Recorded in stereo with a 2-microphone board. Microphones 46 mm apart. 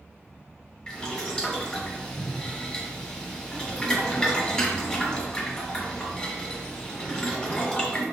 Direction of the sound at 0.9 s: 15° left (ahead or behind).